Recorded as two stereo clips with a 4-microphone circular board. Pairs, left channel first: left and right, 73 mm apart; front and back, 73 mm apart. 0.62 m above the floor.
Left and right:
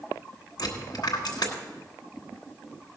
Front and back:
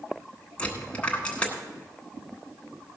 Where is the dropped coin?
75° left, 1.8 m.